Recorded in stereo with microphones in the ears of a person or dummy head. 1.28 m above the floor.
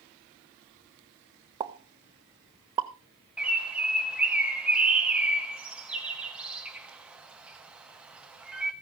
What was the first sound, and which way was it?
A pop, 25° right (ahead or behind).